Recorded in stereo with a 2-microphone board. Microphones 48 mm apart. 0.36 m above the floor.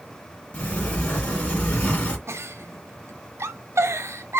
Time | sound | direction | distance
0.5 | a sliding door | 30° left (ahead or behind) | 1.5 m
2.3 | a giggle | 65° right (ahead or behind) | 0.6 m